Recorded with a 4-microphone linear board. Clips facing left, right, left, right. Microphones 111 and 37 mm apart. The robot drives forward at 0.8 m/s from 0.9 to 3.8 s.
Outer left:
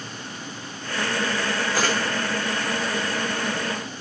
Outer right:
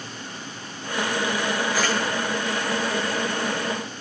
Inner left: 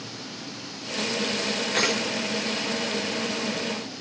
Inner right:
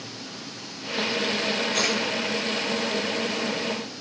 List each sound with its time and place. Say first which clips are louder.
1.7 s a camera shutter: outer left 2 dB, inner left 3 dB; 40° left (ahead or behind), 5.5 m